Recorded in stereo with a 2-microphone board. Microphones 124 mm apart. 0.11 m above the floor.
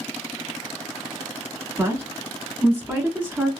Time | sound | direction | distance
1.8 | a woman speaking | 20° right (ahead or behind) | 1.1 m